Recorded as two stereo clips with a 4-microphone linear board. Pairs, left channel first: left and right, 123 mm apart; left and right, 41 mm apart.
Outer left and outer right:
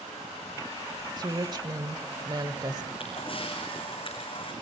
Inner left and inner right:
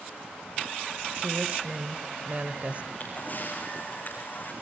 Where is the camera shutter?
45° left (ahead or behind), 4 m.